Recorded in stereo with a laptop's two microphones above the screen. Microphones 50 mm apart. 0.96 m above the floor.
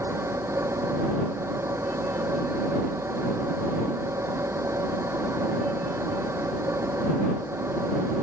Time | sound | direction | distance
0.0 | a machine running | 65° right (ahead or behind) | ?